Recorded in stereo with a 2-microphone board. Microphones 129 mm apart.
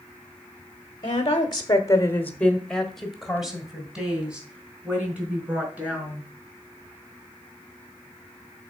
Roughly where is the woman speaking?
Left.